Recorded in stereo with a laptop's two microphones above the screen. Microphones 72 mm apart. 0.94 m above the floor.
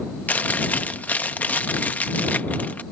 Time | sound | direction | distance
0.3 | chewing | 25° left (ahead or behind) | ?